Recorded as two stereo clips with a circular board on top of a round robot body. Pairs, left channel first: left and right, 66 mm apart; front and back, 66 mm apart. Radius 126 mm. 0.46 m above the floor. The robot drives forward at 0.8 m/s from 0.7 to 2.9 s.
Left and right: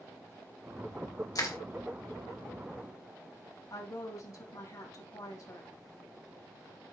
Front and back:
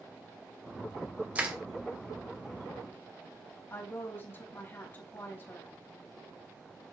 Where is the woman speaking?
60° left, 3 m.